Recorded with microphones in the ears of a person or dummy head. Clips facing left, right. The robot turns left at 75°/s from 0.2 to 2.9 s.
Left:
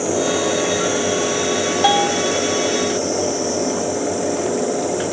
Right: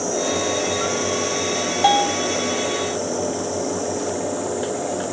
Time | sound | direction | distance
1.8 | a bell | 5° left (ahead or behind) | 0.6 m